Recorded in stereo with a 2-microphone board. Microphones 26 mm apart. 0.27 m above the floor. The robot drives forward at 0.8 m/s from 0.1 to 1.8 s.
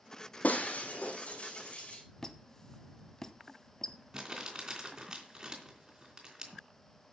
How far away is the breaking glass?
About 1.7 m.